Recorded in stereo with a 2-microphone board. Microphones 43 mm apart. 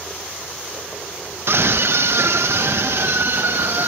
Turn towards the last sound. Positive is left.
turn(degrees=-60)  # may be behind; listen again after turning